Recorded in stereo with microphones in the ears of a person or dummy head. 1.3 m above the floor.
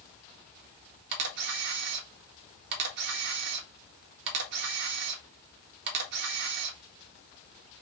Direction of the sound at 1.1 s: 65° right (ahead or behind).